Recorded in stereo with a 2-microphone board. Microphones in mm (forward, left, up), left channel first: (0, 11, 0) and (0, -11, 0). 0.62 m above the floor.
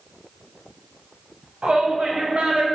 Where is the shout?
55° right (ahead or behind), 3.5 m.